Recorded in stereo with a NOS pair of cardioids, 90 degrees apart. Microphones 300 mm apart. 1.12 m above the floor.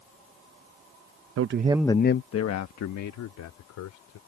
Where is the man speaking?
50° right; by 4.2 s 75° left.